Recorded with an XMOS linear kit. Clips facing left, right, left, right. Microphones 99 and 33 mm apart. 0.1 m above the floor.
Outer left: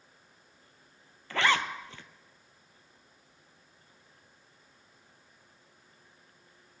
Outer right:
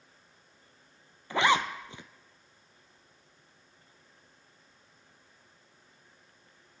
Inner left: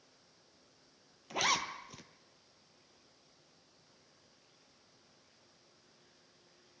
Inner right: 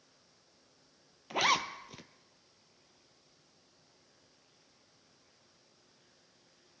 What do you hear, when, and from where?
1.3 s a zipper: 20° right (ahead or behind), 0.5 m